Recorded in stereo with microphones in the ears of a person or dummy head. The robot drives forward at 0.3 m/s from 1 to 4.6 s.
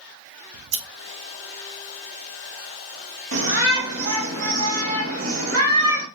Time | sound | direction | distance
0.5 | scissors | 85° right | 0.8 m
3.3 | a shout | 70° right (ahead or behind) | 1.6 m